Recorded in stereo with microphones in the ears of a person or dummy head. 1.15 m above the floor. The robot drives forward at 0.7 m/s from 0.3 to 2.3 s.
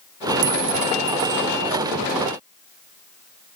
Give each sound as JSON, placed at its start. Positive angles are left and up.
{"t": 0.4, "sound": "a clink", "side_deg": -65}